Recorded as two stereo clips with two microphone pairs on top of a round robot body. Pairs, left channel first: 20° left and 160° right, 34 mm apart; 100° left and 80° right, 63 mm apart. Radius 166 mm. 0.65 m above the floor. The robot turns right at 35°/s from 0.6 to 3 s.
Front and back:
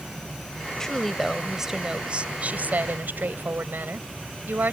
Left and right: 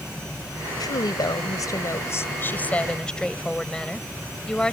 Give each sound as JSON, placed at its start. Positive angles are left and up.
{"t": 0.8, "sound": "a woman speaking", "azimuth_deg": 100}